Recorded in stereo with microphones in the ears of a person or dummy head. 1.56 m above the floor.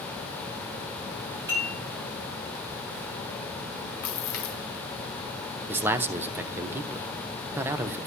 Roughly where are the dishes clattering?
Centre.